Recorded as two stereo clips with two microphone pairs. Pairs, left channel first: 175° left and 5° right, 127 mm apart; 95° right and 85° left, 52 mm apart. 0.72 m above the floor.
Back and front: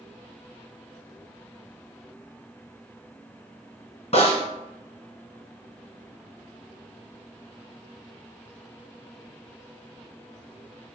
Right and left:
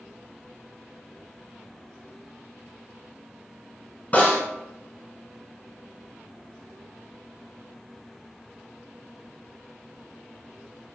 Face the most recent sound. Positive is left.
turn(degrees=-155)